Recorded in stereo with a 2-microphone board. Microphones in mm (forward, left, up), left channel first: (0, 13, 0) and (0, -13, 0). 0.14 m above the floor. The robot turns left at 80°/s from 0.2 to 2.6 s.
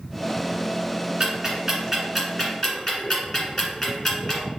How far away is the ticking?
About 1.6 m.